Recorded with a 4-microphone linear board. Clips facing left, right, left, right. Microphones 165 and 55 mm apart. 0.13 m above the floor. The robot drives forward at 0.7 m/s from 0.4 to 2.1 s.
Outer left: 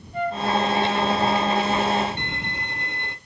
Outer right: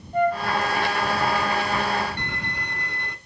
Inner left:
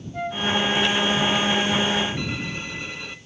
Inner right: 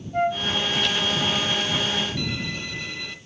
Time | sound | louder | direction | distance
0.1 | a flute | outer right 4 dB, inner right 5 dB | 45° right (ahead or behind) | 3 m
2.2 | a violin | outer left 1 dB, even | 20° left (ahead or behind) | 1.7 m